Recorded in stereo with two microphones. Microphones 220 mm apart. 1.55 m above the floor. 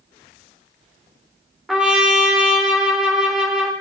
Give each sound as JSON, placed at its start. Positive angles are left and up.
{"t": 1.7, "sound": "a trumpet", "side_deg": 0, "distance_m": 1.3}